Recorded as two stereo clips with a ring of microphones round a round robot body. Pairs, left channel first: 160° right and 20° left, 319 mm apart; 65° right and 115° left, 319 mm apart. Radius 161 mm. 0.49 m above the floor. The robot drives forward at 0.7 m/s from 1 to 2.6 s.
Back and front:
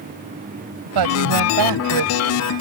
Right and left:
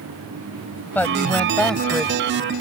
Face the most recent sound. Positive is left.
turn(degrees=25)